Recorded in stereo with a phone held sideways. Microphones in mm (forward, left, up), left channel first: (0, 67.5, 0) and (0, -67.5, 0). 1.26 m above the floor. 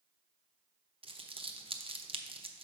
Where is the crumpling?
40° right (ahead or behind), 0.6 m.